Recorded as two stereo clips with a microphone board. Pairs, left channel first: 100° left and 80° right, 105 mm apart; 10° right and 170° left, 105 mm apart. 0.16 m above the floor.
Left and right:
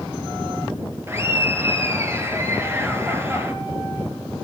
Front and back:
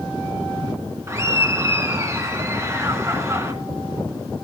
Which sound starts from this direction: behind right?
Laughter, at 1.1 s.